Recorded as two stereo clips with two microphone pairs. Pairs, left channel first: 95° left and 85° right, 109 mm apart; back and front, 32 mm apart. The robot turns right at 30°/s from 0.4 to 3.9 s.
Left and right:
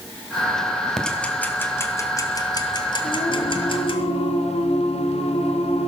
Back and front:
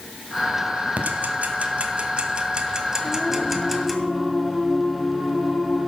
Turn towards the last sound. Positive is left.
turn(degrees=85)